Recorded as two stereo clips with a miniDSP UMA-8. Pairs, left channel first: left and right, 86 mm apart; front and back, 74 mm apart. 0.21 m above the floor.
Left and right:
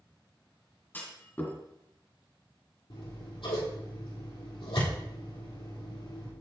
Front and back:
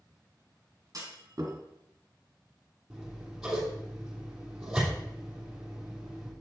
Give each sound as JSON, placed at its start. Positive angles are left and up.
{"t": 0.9, "sound": "a clunk", "azimuth_deg": 155, "distance_m": 1.9}
{"t": 2.9, "sound": "scissors", "azimuth_deg": 100, "distance_m": 3.0}